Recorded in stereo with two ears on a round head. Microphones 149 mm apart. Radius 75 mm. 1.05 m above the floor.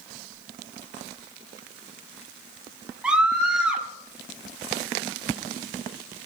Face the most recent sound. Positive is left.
turn(degrees=-5)  # may be behind; listen again after turning